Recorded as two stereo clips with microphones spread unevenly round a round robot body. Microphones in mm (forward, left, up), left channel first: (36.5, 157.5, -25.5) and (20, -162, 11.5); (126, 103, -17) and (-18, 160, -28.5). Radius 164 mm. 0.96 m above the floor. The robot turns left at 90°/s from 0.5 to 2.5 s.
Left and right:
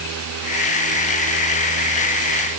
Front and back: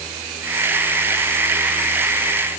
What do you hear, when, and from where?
Only background noise.